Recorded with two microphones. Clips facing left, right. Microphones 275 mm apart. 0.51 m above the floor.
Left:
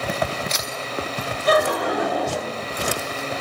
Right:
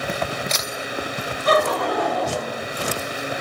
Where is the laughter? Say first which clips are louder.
Even; 5° left (ahead or behind), 0.9 m; by 2.6 s 30° left (ahead or behind), 1.1 m.